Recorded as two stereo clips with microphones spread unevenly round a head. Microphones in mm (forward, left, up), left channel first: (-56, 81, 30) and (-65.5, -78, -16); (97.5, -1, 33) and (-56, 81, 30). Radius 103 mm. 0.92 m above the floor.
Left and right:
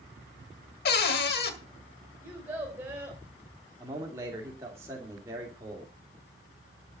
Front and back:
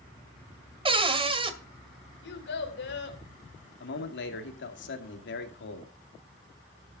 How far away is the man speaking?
About 2.5 m.